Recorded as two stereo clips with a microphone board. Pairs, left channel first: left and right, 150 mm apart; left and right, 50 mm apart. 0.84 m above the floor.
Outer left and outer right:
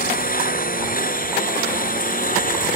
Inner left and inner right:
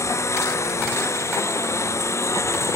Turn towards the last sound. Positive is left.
turn(degrees=70)  # may be behind; listen again after turning